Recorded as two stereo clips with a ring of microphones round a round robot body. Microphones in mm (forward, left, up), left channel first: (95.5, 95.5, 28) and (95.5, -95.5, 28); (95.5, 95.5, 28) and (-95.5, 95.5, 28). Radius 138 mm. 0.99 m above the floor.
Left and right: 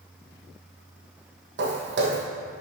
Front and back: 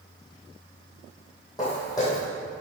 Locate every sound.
1.6 s footsteps: 75° right, 2 m